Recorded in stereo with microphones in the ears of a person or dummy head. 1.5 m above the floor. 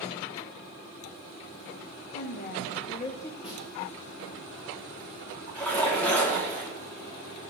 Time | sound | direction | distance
2.1 | a woman speaking | 50° left (ahead or behind) | 1.3 m
3.4 | a snare drum | 30° left (ahead or behind) | 1.9 m
5.5 | a splash | 5° left (ahead or behind) | 3 m